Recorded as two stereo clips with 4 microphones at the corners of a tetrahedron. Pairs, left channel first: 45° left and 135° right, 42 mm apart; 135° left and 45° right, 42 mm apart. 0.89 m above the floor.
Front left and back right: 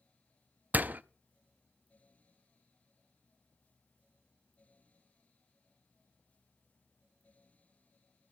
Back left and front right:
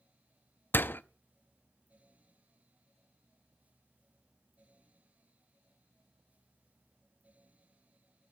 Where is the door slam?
175° left, 0.5 m.